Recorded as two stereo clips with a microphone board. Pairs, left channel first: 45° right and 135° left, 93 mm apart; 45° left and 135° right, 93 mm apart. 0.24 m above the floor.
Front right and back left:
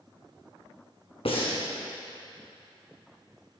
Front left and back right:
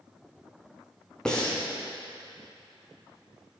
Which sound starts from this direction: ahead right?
Breathing, at 1.2 s.